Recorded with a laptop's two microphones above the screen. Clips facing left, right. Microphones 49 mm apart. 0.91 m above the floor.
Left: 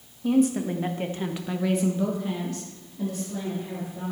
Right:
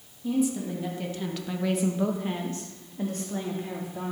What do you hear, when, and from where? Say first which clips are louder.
0.2 s a woman speaking: left 5 dB; 55° left (ahead or behind), 1.6 m; by 4.1 s 55° right (ahead or behind), 2.5 m